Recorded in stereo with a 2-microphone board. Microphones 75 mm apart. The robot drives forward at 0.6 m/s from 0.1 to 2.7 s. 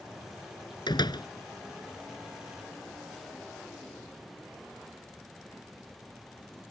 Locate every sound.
0.9 s a door slam: 80° left